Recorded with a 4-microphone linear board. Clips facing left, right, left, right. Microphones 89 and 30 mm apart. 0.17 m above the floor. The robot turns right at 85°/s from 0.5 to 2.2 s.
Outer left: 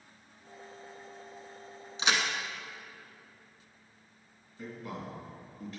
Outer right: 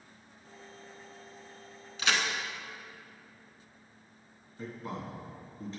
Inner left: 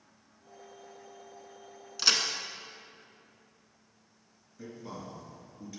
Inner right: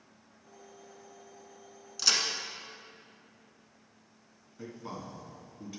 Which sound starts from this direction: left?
A crack, at 2.0 s.